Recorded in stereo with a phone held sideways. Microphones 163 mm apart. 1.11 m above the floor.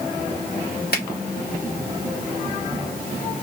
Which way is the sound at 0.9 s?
85° left.